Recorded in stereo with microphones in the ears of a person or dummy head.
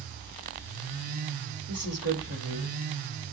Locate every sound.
1.7 s a woman speaking: 50° right (ahead or behind), 8 m